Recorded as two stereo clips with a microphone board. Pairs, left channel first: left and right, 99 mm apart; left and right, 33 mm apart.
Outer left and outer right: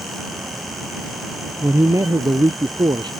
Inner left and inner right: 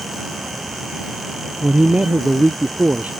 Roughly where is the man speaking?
Right.